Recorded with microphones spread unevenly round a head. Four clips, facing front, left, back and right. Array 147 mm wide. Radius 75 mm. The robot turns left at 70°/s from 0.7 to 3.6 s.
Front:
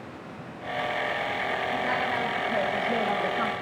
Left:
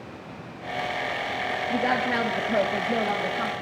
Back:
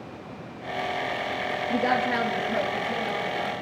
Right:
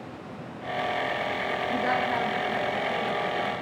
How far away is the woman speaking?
About 2 m.